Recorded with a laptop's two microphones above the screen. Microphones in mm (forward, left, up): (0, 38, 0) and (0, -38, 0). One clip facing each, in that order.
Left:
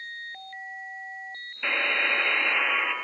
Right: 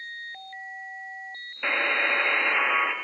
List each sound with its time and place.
1.6 s a buzzer: 15° right (ahead or behind), 1.2 m